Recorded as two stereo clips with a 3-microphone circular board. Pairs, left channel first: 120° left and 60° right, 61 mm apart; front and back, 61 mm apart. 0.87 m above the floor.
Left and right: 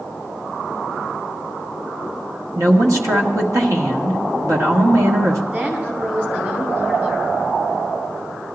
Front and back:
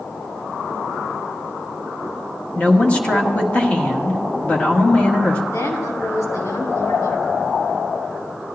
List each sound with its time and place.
2.5 s a woman speaking: 60° right, 1.6 m
5.5 s a woman speaking: straight ahead, 3.5 m